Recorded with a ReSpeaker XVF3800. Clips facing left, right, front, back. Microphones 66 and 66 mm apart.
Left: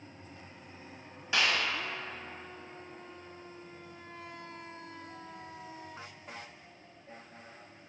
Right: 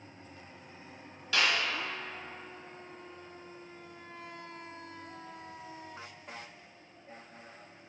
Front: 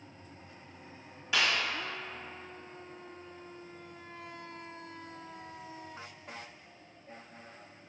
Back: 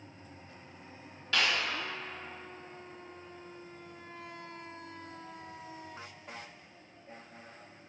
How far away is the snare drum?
About 1.1 m.